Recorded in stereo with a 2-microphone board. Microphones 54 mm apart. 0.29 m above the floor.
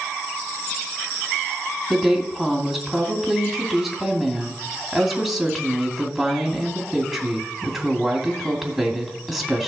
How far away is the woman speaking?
About 2 m.